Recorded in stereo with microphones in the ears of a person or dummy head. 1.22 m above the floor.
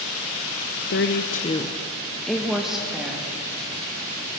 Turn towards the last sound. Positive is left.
turn(degrees=-10)  # may be behind; listen again after turning